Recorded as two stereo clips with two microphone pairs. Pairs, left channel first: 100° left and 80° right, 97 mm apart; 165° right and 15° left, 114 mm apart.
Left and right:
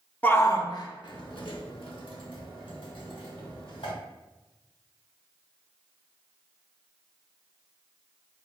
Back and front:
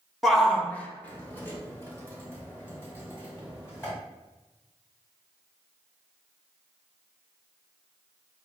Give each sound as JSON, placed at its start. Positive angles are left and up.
{"t": 0.2, "sound": "a shout", "azimuth_deg": 90, "distance_m": 0.5}